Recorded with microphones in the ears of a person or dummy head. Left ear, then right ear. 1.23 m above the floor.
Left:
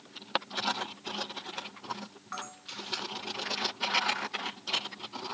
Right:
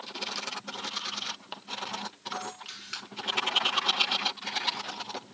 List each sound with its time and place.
2.3 s a camera shutter: 20° right (ahead or behind), 1.0 m